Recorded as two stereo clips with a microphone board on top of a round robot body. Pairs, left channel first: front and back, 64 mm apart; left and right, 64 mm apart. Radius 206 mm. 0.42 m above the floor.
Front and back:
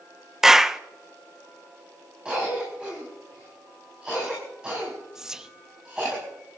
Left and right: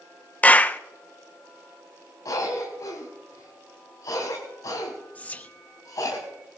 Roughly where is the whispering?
Behind left.